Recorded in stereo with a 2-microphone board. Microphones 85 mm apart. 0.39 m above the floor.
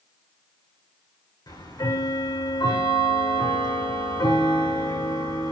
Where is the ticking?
55° left (ahead or behind), 7 m.